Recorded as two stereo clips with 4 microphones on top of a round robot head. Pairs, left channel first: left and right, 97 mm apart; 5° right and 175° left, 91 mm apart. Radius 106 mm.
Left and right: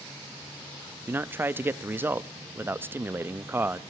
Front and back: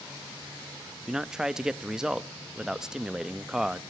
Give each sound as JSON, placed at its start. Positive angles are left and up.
{"t": 1.1, "sound": "a man speaking", "azimuth_deg": -115, "distance_m": 0.7}